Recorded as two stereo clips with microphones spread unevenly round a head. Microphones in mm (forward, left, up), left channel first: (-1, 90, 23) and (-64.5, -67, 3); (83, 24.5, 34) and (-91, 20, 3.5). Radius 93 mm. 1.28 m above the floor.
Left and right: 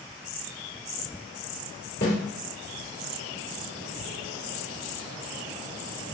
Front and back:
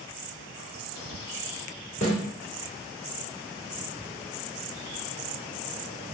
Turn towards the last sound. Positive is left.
turn(degrees=40)